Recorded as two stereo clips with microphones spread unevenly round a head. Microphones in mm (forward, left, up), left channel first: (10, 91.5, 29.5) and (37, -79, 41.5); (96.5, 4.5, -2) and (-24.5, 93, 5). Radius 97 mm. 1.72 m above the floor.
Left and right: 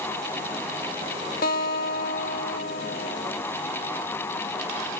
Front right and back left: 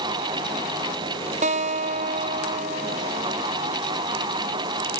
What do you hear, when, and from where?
1.4 s a guitar: 135° left, 0.7 m